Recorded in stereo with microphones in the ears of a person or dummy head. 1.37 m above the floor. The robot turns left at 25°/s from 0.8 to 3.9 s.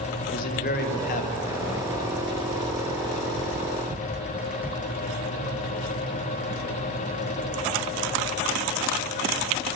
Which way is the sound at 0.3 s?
55° left (ahead or behind).